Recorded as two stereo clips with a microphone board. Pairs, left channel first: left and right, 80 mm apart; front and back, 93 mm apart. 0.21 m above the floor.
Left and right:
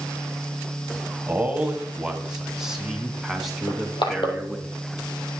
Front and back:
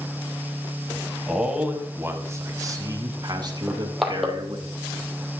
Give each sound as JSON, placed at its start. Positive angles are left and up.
{"t": 1.3, "sound": "a man speaking", "azimuth_deg": -105, "distance_m": 1.1}
{"t": 3.7, "sound": "crushing", "azimuth_deg": 90, "distance_m": 1.9}